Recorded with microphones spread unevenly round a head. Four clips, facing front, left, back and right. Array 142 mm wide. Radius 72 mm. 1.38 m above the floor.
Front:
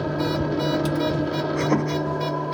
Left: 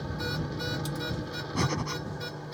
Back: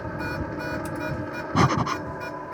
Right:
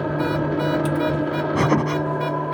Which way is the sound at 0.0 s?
55° right.